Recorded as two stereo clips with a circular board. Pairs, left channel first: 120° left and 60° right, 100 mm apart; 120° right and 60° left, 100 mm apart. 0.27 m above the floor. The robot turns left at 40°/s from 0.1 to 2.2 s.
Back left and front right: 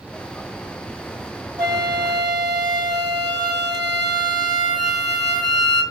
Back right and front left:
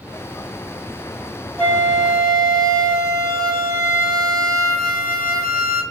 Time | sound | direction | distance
1.6 | a flute | 45° right | 1.6 m